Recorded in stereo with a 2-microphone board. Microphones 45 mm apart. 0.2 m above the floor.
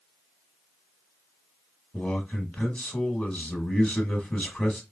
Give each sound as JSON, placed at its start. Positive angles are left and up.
{"t": 1.9, "sound": "a man speaking", "side_deg": 25, "distance_m": 1.2}